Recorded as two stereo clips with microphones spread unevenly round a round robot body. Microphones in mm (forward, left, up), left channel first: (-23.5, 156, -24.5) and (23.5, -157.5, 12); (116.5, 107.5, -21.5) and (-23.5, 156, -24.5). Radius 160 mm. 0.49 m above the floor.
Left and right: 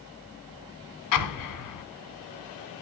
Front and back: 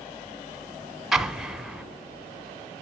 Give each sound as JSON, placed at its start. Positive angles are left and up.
{"t": 1.1, "sound": "an explosion", "azimuth_deg": 75, "distance_m": 1.0}